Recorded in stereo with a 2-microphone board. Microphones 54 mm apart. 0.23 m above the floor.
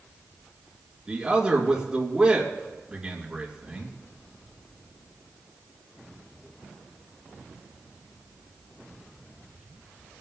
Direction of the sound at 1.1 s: 15° right (ahead or behind).